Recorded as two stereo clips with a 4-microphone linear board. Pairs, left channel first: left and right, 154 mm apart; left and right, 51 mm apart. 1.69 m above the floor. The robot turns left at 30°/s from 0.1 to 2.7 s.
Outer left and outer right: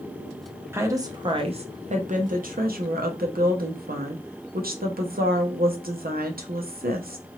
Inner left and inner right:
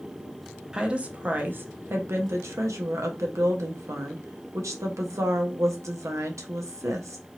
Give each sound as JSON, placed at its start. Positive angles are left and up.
{"t": 0.7, "sound": "a woman speaking", "azimuth_deg": -15, "distance_m": 0.7}